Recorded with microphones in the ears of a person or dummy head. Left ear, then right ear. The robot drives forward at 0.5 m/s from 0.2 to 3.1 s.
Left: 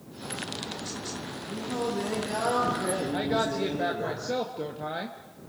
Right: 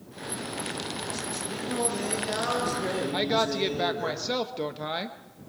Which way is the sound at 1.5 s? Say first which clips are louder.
Even; 40° right (ahead or behind).